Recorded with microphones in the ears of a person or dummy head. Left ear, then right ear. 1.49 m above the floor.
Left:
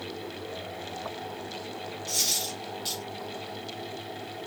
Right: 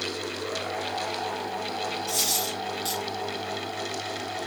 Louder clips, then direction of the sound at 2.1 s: Left 1 dB; 5° right (ahead or behind).